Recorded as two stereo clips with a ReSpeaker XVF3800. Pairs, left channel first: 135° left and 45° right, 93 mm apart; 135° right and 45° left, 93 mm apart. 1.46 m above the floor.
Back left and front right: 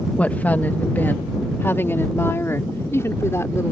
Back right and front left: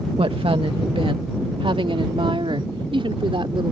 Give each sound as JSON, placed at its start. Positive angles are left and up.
{"t": 0.2, "sound": "a woman speaking", "azimuth_deg": 60}